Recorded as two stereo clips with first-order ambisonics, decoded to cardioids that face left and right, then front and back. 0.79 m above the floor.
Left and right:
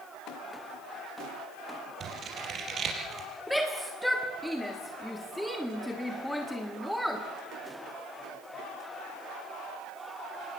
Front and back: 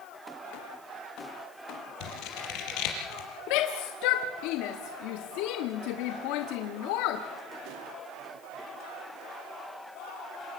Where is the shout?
Straight ahead, 1.4 m.